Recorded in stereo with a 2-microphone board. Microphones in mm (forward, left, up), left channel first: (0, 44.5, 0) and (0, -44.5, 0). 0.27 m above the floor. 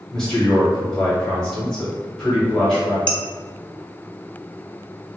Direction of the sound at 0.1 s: 5° left (ahead or behind).